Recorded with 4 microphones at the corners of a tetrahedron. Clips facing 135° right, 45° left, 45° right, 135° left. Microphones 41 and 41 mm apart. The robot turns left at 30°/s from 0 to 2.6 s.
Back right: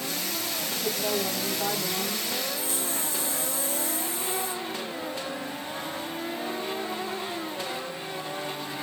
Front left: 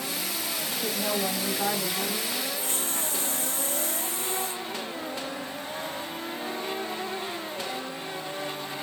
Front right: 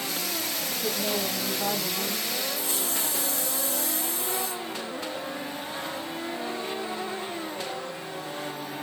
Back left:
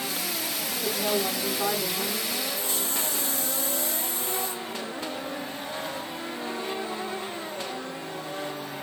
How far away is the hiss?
About 3 m.